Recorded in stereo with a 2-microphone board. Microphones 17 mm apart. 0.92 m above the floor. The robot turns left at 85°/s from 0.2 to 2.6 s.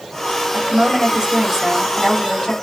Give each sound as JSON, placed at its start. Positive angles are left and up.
{"t": 0.5, "sound": "a woman speaking", "azimuth_deg": -55, "distance_m": 2.5}